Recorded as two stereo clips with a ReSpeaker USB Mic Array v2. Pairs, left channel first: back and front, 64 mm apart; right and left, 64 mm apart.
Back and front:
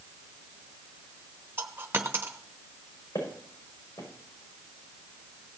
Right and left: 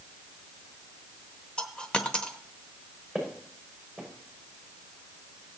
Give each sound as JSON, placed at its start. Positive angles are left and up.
{"t": 1.6, "sound": "a dropped coin", "azimuth_deg": -25, "distance_m": 1.1}
{"t": 3.1, "sound": "footsteps", "azimuth_deg": 180, "distance_m": 6.0}